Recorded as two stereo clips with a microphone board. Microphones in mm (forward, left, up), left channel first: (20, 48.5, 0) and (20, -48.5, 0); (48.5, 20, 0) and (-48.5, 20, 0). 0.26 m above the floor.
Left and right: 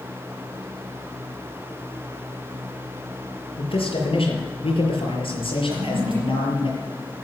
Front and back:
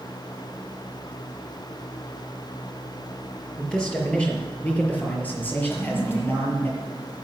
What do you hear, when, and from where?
3.6 s a man speaking: 80° left, 5 m; by 6.7 s 65° left, 5.5 m
5.7 s a toilet flushing: 65° right, 7.5 m